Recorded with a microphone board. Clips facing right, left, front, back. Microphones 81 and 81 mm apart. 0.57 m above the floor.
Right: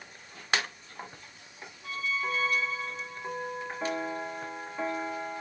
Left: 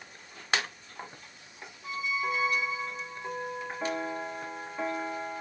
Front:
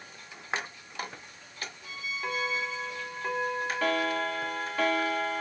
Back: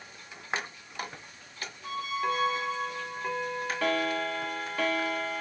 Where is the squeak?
165° left.